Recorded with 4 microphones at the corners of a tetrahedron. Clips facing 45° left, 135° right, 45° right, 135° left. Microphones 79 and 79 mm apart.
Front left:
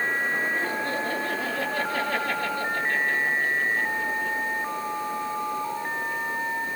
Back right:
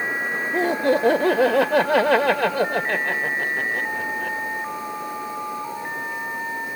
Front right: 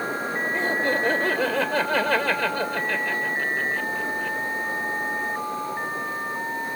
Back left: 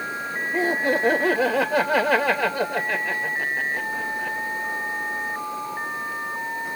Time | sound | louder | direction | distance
0.5 | laughter | back right 8 dB, back left 4 dB | 150° right | 0.7 m